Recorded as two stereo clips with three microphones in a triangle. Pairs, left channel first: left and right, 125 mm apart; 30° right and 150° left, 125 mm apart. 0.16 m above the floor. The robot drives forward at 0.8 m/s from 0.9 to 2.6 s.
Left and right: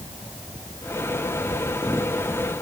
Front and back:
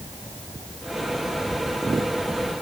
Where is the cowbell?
I don't hear a cowbell.